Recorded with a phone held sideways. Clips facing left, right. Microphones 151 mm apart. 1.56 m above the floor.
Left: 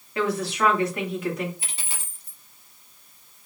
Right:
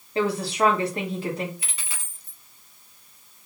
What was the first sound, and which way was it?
A woman speaking, 30° right (ahead or behind).